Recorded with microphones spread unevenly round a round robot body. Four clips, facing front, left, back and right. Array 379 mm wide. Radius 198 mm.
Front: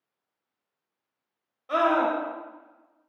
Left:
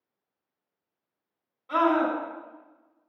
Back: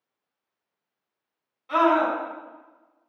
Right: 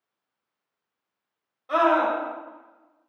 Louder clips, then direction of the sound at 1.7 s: Right 2 dB, back 2 dB; 50° right.